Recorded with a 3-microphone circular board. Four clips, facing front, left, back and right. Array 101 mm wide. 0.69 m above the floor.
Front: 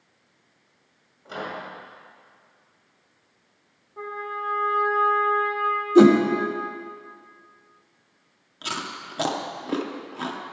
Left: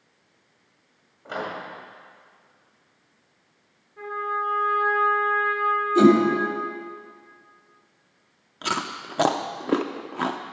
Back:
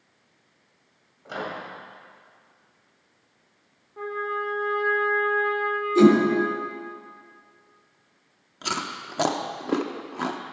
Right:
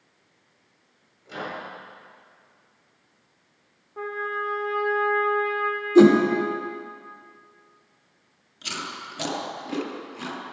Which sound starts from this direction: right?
A trumpet, at 4.0 s.